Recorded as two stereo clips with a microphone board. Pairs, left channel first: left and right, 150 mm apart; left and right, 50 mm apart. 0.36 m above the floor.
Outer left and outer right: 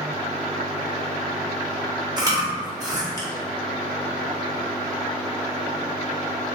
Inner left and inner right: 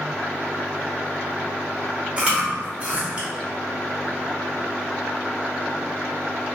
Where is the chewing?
25° right (ahead or behind), 1.2 m.